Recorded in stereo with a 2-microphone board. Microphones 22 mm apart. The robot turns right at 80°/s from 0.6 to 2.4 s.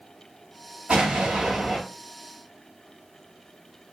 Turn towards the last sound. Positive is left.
turn(degrees=45)